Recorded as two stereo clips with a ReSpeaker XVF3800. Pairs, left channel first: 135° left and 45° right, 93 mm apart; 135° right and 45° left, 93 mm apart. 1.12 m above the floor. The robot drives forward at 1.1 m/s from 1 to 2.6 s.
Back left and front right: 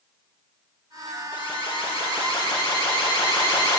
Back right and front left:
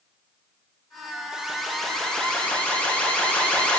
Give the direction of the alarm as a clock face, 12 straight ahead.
8 o'clock.